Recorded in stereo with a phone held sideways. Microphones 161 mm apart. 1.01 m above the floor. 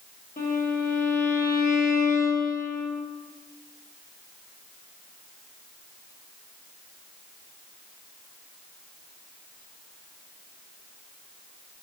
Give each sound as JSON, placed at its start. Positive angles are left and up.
{"t": 0.4, "sound": "a violin", "side_deg": 55, "distance_m": 1.2}